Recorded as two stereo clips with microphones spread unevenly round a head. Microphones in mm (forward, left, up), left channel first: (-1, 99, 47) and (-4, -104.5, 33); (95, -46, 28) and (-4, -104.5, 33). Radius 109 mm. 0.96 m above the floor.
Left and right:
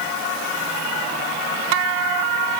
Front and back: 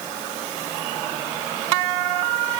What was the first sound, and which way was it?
Only background noise.